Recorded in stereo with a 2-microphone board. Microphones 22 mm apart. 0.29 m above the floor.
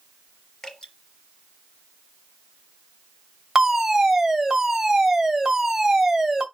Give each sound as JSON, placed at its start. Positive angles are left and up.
{"t": 0.6, "sound": "dripping", "side_deg": 10, "distance_m": 5.0}
{"t": 3.5, "sound": "a fire alarm", "side_deg": -20, "distance_m": 2.5}